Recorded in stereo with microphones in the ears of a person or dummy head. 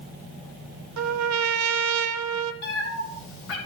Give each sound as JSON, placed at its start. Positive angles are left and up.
{"t": 1.0, "sound": "a trumpet", "side_deg": -80, "distance_m": 0.6}
{"t": 2.6, "sound": "a cat meowing", "side_deg": 60, "distance_m": 2.0}